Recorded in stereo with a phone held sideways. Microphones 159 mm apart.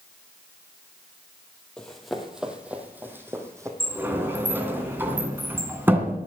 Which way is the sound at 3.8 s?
15° right (ahead or behind).